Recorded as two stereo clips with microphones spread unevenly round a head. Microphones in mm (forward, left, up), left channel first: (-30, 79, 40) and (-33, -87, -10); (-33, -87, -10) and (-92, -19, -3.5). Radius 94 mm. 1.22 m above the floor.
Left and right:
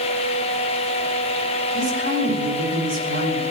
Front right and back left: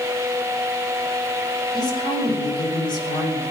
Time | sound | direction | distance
1.7 | a woman speaking | 90° right | 9 m